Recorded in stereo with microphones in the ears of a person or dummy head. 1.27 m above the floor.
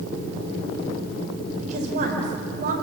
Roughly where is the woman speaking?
Right.